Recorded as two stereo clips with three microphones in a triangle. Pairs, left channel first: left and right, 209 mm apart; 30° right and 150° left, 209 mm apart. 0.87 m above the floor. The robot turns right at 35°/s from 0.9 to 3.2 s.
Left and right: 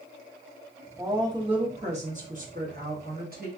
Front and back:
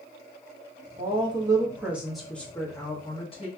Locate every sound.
1.0 s a woman speaking: 160° right, 1.2 m; by 3.5 s 85° right, 1.2 m